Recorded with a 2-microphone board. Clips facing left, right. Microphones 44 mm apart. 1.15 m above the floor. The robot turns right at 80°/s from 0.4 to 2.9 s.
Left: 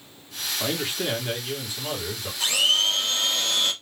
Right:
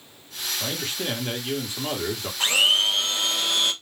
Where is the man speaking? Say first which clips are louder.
Left 3 dB; 145° left, 1.1 m; by 2.3 s 80° right, 1.1 m.